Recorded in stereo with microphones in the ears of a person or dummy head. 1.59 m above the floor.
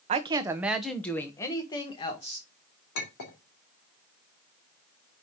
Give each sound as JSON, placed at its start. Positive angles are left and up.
{"t": 0.1, "sound": "a woman speaking", "side_deg": -30, "distance_m": 0.9}
{"t": 3.0, "sound": "a clink", "side_deg": 65, "distance_m": 2.5}